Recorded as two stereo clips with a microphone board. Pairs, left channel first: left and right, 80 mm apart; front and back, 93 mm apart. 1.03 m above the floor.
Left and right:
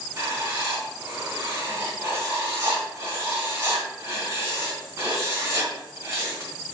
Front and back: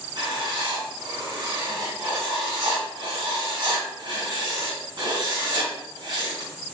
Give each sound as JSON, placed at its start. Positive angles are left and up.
{"t": 0.2, "sound": "writing", "azimuth_deg": -140, "distance_m": 3.0}